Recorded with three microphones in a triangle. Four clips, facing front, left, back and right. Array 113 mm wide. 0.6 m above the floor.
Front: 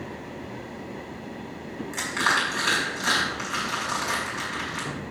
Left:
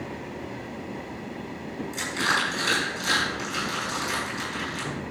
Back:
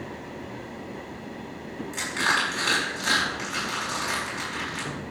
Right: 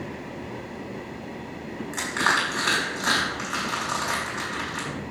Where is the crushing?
90° right, 5 m.